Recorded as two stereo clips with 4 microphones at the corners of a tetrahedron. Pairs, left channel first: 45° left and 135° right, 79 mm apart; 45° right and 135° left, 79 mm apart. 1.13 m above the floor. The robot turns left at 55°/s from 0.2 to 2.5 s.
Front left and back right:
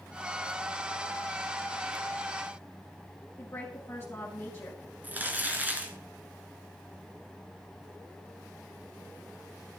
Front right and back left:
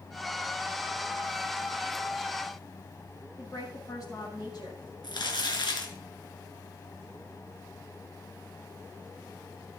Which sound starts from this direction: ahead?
A woman speaking, at 3.4 s.